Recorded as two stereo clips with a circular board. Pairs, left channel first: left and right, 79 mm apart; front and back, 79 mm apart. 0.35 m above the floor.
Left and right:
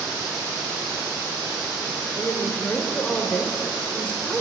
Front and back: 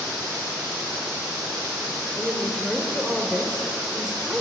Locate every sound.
2.2 s a woman speaking: 120° left, 1.0 m